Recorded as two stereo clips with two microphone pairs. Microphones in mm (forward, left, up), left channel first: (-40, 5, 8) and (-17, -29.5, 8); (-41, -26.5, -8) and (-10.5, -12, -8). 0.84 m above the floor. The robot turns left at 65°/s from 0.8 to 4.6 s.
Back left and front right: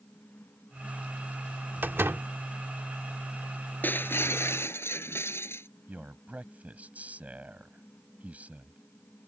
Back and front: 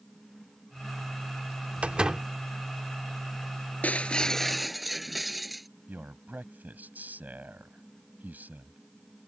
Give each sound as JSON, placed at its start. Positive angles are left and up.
{"t": 1.8, "sound": "a door slam", "azimuth_deg": -20}
{"t": 3.8, "sound": "breaking glass", "azimuth_deg": 165}
{"t": 5.9, "sound": "a man speaking", "azimuth_deg": -5}